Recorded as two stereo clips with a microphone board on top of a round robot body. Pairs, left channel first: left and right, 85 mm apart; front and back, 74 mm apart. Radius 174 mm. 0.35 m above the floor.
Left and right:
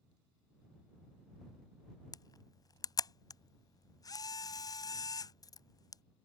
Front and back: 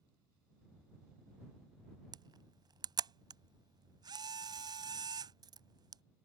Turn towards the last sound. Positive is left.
turn(degrees=140)